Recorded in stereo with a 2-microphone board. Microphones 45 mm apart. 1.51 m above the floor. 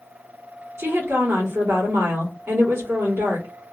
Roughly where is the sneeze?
I don't hear a sneeze.